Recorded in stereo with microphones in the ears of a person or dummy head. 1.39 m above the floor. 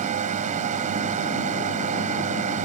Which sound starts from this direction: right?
A drone, at 0.0 s.